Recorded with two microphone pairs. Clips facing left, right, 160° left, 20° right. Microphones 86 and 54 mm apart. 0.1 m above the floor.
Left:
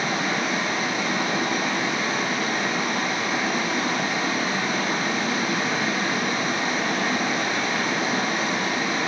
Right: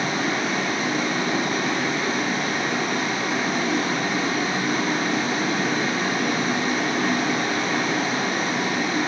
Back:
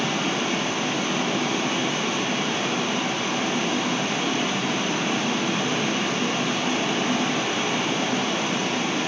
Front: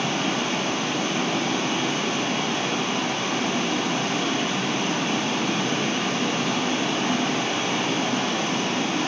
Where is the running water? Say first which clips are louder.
Right 1 dB, even; 135° right, 1.2 m.